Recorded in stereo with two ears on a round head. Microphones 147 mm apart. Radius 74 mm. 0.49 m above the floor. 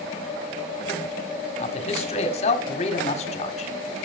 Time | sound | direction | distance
1.6 | a man speaking | 40° left (ahead or behind) | 1.6 m